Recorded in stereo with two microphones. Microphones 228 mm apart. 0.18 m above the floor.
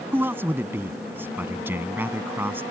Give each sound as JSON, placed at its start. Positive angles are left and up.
{"t": 0.1, "sound": "a man speaking", "side_deg": -10}